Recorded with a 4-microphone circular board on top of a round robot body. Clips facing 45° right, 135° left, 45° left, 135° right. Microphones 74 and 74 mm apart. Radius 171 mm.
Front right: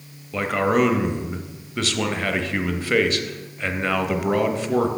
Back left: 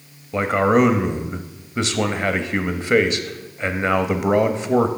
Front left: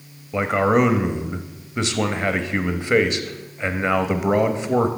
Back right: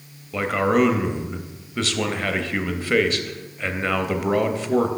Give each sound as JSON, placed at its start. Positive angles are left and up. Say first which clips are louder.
{"t": 0.3, "sound": "a man speaking", "louder": "back left 3 dB, front left 2 dB", "azimuth_deg": 95, "distance_m": 0.9}